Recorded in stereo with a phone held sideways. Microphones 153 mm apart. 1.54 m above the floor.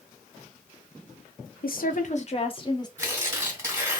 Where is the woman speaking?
75° left (ahead or behind), 0.7 m; by 2.9 s 25° left (ahead or behind), 0.9 m.